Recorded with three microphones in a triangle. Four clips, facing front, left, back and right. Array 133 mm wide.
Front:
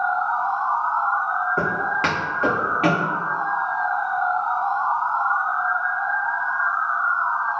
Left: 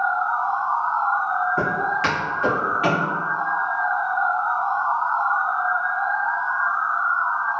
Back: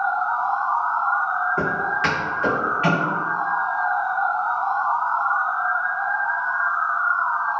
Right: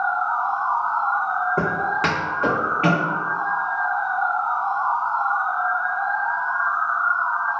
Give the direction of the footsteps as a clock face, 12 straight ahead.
2 o'clock.